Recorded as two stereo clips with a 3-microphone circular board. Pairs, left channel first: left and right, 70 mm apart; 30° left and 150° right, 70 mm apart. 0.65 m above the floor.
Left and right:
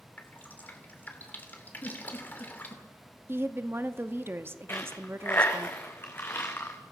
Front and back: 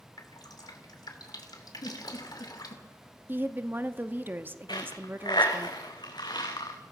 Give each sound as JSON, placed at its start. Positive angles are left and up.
{"t": 0.2, "sound": "dripping", "azimuth_deg": 30, "distance_m": 2.5}
{"t": 1.8, "sound": "a giggle", "azimuth_deg": 35, "distance_m": 6.0}
{"t": 3.3, "sound": "a woman speaking", "azimuth_deg": -115, "distance_m": 0.9}
{"t": 4.7, "sound": "a dropped coin", "azimuth_deg": 30, "distance_m": 3.5}